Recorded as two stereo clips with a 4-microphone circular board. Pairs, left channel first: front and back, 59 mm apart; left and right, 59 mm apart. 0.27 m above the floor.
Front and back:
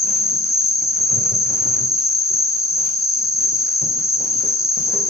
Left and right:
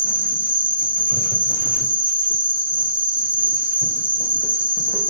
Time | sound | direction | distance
0.0 | an insect | 25° right | 1.2 m